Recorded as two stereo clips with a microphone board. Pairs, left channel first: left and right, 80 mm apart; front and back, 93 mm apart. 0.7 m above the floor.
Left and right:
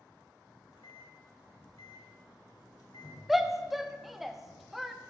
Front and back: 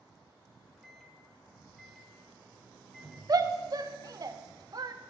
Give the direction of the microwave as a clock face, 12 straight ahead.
9 o'clock.